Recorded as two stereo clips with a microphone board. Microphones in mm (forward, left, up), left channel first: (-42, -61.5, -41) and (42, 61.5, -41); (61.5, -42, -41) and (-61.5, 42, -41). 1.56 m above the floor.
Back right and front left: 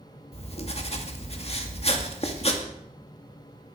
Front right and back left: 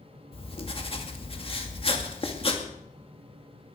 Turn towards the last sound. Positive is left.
turn(degrees=-80)